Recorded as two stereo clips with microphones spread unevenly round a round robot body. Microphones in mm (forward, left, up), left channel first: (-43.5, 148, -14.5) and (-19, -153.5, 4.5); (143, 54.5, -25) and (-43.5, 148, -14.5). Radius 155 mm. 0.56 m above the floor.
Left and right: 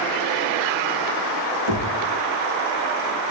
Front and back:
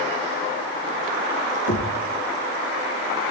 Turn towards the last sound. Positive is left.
turn(degrees=-45)